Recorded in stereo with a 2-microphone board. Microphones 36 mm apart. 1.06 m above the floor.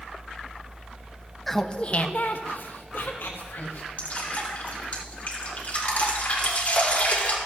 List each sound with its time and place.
1.5 s laughter: 10° left (ahead or behind), 0.5 m; by 3.9 s 70° left (ahead or behind), 1.8 m
4.0 s dripping: 40° left (ahead or behind), 2 m